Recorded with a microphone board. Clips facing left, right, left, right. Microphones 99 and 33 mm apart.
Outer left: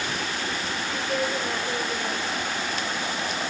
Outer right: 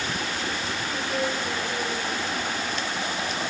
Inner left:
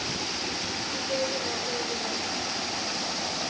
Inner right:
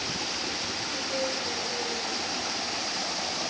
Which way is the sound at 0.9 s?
45° left (ahead or behind).